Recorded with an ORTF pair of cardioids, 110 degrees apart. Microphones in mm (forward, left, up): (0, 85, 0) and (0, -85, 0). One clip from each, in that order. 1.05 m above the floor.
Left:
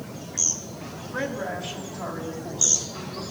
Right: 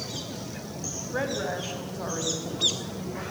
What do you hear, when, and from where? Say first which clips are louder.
1.1 s a woman speaking: even; 5° right, 6 m; by 3.2 s 5° left, 7 m